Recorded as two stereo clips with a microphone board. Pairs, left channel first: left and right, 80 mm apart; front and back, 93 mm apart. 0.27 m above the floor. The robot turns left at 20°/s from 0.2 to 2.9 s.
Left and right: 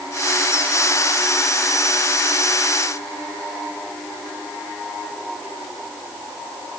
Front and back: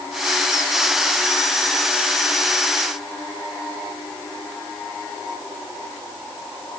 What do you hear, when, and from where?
Only background noise.